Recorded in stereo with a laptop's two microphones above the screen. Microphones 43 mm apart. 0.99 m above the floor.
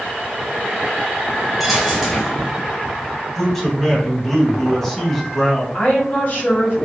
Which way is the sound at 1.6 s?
5° right (ahead or behind).